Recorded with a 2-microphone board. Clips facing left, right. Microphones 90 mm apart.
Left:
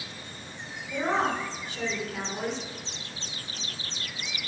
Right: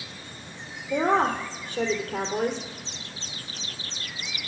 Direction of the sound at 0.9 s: 60° right (ahead or behind).